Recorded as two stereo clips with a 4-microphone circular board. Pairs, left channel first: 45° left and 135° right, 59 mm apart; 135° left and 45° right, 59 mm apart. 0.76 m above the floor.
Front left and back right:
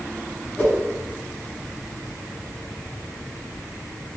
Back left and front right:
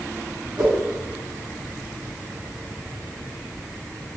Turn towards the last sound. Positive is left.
turn(degrees=-30)